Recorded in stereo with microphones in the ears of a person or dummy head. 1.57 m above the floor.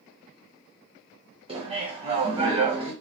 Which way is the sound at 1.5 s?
20° right (ahead or behind).